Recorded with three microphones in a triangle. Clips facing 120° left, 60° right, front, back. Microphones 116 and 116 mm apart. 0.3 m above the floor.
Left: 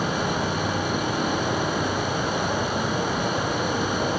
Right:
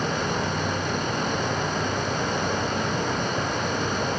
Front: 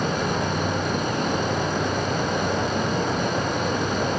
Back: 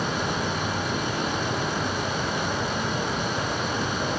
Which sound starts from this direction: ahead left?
An insect, at 0.0 s.